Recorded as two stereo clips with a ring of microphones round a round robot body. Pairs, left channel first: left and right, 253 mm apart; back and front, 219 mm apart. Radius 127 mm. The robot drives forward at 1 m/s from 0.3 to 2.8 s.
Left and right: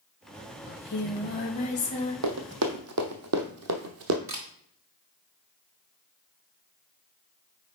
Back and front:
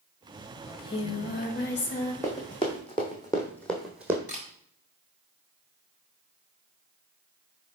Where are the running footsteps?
100° right, 1.4 m; by 4.2 s 80° right, 1.1 m.